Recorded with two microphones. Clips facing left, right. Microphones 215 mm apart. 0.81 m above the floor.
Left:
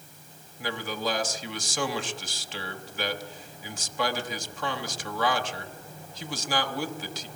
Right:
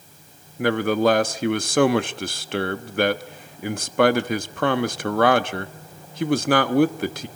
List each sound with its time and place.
0.6 s a man speaking: 65° right (ahead or behind), 1.1 m